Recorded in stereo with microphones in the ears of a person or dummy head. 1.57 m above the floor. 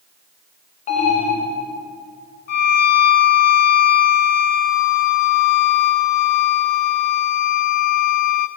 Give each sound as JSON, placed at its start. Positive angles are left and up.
{"t": 0.9, "sound": "an alarm", "side_deg": 40, "distance_m": 2.5}
{"t": 2.5, "sound": "a violin", "side_deg": 50, "distance_m": 0.8}